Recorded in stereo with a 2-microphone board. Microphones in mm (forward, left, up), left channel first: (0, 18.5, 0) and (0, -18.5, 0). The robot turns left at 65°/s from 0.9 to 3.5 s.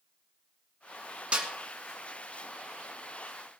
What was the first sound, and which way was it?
A snare drum, 35° right (ahead or behind).